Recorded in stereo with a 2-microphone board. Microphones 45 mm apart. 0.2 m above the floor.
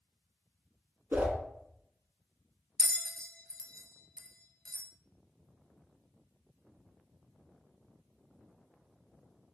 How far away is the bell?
About 0.5 m.